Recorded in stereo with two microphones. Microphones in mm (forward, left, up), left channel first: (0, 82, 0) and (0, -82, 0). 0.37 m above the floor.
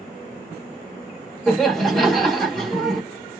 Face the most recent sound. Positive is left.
turn(degrees=0)  # may be behind; listen again after turning